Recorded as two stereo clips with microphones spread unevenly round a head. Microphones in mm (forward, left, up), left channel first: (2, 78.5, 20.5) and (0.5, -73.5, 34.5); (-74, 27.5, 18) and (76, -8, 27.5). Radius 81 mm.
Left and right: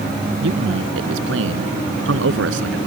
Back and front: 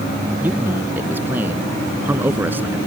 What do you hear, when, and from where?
0.4 s a man speaking: 90° right